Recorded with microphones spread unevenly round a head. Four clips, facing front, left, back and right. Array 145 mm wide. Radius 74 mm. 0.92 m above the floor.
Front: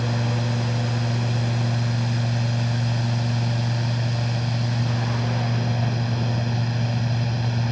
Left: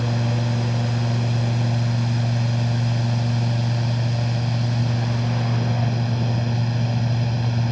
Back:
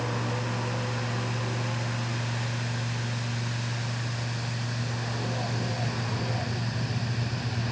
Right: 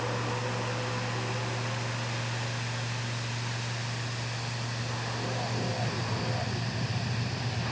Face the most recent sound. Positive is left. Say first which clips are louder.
# left 7 dB, front 4 dB
turn(degrees=65)